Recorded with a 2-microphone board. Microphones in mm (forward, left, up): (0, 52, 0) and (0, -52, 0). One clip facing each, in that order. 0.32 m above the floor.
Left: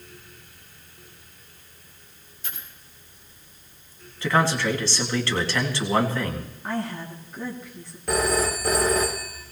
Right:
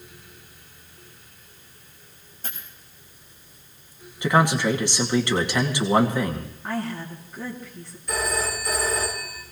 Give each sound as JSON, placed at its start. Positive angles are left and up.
{"t": 2.4, "sound": "a dropped coin", "side_deg": -45, "distance_m": 6.5}
{"t": 4.2, "sound": "a man speaking", "side_deg": -20, "distance_m": 2.5}
{"t": 6.6, "sound": "a woman speaking", "side_deg": 0, "distance_m": 3.0}
{"t": 8.1, "sound": "a phone ringing", "side_deg": 75, "distance_m": 2.5}